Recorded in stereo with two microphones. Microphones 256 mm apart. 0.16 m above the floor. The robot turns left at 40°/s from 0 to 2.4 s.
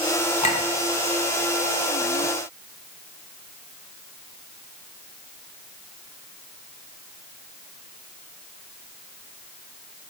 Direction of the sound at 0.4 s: 25° left (ahead or behind).